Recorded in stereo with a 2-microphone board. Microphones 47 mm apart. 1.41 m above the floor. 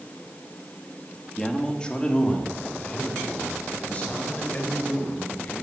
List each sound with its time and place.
1.4 s a man speaking: 15° left (ahead or behind), 2.5 m; by 5.6 s 30° left (ahead or behind), 8.5 m